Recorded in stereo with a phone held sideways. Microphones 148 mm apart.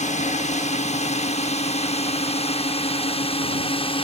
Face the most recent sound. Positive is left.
turn(degrees=40)  # may be behind; listen again after turning